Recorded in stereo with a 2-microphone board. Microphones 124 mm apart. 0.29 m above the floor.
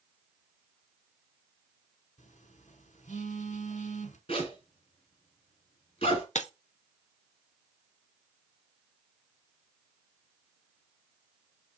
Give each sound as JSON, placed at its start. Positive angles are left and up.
{"t": 2.2, "sound": "a phone buzzing", "side_deg": 75, "distance_m": 1.0}
{"t": 4.3, "sound": "a zipper", "side_deg": 50, "distance_m": 2.5}
{"t": 6.3, "sound": "breaking glass", "side_deg": 70, "distance_m": 0.5}